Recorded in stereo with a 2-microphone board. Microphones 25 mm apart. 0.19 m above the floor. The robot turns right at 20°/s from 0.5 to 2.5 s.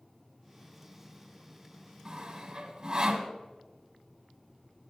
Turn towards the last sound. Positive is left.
turn(degrees=-35)  # may be behind; listen again after turning